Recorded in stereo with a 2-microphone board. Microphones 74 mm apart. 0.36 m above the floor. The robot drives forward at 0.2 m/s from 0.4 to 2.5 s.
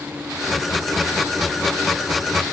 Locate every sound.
Only background noise.